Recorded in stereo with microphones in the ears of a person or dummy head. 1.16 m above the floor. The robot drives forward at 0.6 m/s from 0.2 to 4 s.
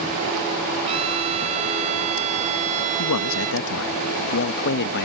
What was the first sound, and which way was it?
A trumpet, 35° right (ahead or behind).